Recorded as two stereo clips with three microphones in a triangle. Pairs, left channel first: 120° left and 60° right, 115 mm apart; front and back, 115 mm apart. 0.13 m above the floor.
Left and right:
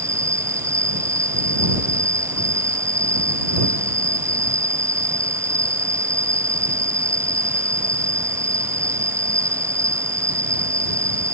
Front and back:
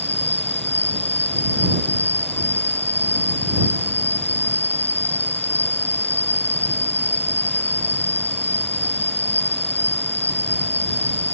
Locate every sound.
0.0 s an insect: straight ahead